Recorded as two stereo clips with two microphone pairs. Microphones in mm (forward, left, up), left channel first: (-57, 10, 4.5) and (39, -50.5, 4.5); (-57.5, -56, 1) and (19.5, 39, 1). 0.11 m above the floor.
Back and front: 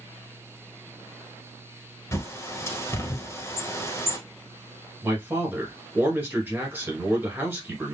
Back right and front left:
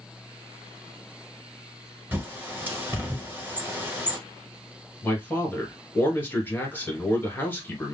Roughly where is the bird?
Left.